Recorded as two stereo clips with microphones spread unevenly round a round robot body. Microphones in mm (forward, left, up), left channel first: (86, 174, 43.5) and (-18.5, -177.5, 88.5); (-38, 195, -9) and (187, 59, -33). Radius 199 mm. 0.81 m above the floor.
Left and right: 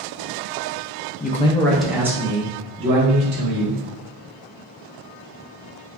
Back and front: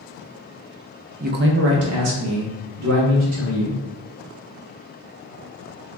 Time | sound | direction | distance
1.2 | a man speaking | 20° left | 0.5 m